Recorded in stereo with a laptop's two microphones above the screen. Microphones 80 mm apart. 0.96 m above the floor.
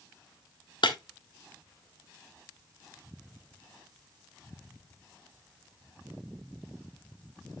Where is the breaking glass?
70° left (ahead or behind), 1.1 m.